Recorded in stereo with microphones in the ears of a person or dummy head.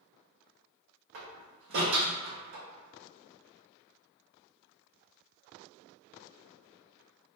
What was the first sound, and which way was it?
A door slam, 50° right (ahead or behind).